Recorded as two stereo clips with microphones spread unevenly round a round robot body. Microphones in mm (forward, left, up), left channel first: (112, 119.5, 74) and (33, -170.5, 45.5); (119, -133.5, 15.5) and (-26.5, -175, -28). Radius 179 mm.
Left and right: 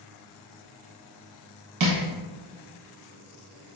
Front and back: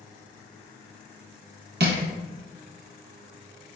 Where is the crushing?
145° right, 0.9 m.